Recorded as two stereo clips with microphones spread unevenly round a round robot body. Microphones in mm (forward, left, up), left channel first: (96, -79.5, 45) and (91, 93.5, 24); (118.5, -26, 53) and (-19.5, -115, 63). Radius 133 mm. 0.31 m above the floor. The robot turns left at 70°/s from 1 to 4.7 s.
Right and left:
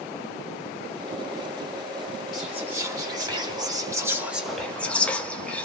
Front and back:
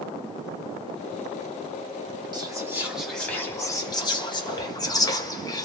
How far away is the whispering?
About 0.9 m.